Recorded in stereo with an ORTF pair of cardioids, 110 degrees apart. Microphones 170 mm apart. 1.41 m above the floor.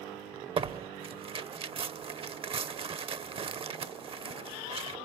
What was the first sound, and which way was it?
Tearing paper, 35° right.